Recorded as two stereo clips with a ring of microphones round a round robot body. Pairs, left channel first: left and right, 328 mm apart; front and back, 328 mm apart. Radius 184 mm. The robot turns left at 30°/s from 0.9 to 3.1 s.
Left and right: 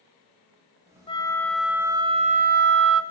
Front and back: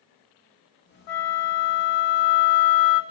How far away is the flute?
About 1.2 m.